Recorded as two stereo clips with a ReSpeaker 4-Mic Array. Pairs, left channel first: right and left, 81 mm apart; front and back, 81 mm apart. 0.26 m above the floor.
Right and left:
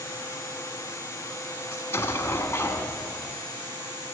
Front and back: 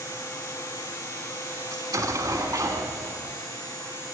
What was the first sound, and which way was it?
An explosion, 145° right.